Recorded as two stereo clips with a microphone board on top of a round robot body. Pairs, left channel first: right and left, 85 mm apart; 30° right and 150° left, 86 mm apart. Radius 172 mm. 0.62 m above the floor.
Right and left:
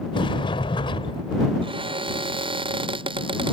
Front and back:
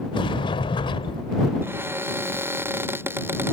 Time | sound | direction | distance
0.1 | a sliding door | 60° right | ?
1.6 | a cupboard door | 85° left | ?